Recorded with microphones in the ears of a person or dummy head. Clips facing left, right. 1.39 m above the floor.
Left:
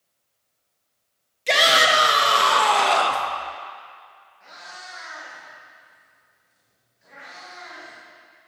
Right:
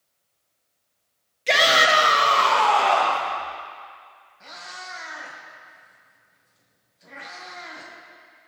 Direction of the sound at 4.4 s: 65° right (ahead or behind).